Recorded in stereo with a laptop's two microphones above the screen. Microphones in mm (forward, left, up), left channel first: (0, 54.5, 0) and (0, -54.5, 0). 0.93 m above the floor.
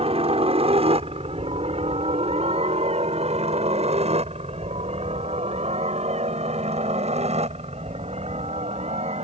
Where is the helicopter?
60° right (ahead or behind); by 9.2 s 75° right (ahead or behind).